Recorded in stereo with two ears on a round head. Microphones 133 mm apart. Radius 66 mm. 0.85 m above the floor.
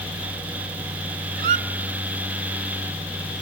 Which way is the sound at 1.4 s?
60° right (ahead or behind).